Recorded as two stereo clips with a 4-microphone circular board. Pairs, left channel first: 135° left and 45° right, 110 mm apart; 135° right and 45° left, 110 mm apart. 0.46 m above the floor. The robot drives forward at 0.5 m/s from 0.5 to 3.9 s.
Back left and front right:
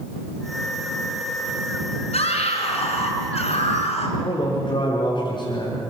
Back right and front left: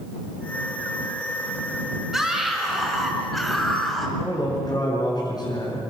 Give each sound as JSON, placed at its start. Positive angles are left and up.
{"t": 2.1, "sound": "a scream", "azimuth_deg": 130, "distance_m": 6.0}
{"t": 4.2, "sound": "a man speaking", "azimuth_deg": 175, "distance_m": 5.5}